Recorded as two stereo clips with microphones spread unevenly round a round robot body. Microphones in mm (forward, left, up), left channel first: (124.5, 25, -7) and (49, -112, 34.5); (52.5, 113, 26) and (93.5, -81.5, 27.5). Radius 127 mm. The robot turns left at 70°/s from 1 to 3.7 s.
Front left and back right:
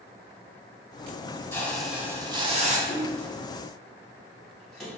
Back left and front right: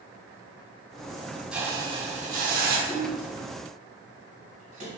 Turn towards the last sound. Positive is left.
turn(degrees=-25)